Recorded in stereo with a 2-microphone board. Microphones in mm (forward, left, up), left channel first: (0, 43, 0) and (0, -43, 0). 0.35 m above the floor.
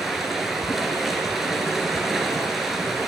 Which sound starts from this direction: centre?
Running water, at 0.0 s.